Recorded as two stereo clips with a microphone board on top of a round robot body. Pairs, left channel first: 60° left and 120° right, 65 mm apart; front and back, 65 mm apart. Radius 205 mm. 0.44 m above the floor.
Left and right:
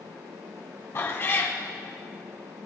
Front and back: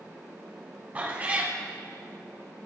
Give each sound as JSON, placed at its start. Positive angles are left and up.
{"t": 0.9, "sound": "a cat meowing", "azimuth_deg": 110, "distance_m": 1.8}